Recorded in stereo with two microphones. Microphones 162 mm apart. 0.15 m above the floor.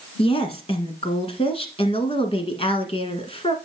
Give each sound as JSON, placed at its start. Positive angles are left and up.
{"t": 0.2, "sound": "a woman speaking", "side_deg": 35, "distance_m": 1.4}